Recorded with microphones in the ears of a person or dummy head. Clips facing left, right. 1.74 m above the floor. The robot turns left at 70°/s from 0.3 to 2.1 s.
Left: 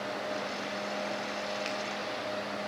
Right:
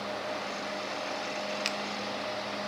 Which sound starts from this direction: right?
A finger snap, at 1.6 s.